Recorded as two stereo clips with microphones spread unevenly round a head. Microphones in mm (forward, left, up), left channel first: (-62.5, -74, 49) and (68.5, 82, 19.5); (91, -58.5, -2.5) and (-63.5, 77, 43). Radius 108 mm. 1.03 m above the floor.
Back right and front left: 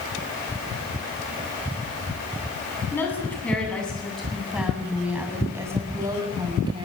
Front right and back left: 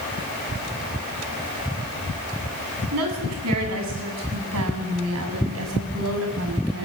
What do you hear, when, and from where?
2.9 s a woman speaking: 150° left, 8.5 m; by 6.8 s 115° left, 6.5 m